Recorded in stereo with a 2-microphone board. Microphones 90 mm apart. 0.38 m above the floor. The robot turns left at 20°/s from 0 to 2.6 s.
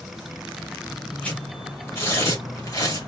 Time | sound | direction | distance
1.2 | tearing paper | 15° left (ahead or behind) | 3 m